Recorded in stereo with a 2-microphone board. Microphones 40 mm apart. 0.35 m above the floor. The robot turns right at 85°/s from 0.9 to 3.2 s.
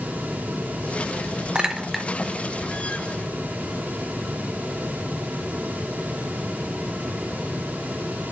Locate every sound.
1.6 s a clink: 25° right (ahead or behind), 0.5 m; by 2.1 s 5° left (ahead or behind), 0.5 m